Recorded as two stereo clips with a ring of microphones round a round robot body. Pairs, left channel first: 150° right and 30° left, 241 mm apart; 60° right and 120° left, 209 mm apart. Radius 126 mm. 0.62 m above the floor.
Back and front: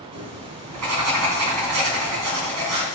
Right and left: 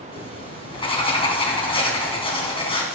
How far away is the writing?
About 2.5 m.